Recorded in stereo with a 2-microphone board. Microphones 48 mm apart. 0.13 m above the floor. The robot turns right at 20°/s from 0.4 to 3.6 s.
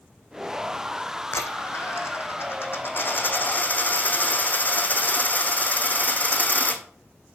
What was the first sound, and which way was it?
A dropped coin, 95° left.